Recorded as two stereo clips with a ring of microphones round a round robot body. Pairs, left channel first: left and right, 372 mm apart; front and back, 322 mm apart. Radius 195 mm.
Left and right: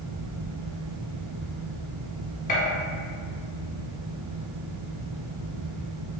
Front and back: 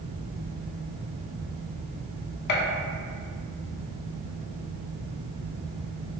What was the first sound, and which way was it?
A gunshot, 25° left.